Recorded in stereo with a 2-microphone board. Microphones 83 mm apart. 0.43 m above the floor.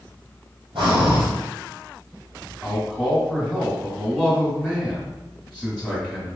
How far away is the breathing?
About 2 m.